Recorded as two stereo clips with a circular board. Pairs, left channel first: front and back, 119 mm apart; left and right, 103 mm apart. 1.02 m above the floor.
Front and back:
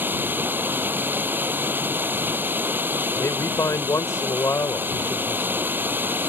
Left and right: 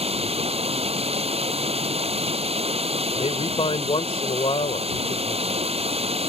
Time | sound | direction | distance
0.0 | running water | 105° right | ?
3.1 | a man speaking | 65° left | ?